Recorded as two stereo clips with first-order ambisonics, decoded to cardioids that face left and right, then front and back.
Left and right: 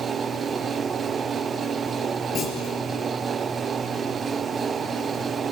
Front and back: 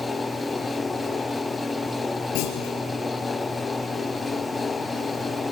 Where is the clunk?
25° left, 5 m.